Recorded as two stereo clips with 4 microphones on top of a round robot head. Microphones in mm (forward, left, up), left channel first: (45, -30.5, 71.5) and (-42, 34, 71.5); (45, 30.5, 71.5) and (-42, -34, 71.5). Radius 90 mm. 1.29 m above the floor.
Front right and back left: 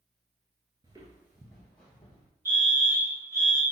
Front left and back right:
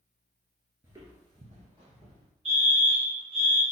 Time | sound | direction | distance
0.8 | footsteps | 165° left | 1.3 m
2.5 | a fire alarm | 150° right | 3.5 m